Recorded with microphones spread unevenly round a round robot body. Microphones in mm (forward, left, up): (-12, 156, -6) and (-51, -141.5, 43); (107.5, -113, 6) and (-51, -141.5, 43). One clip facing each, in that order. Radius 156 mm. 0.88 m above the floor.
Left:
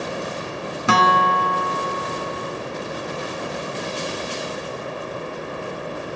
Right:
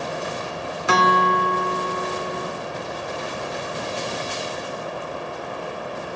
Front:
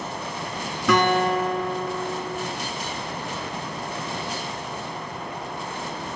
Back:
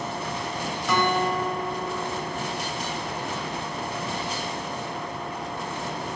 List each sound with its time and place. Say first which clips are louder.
0.9 s a guitar: even, front 4 dB; 55° left, 1.4 m